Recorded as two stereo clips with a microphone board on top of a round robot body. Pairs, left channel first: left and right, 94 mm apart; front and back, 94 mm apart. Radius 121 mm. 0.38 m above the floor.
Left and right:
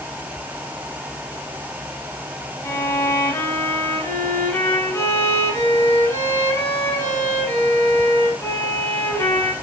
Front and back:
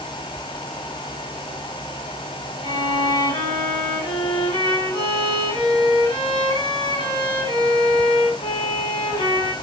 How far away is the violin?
About 4.5 m.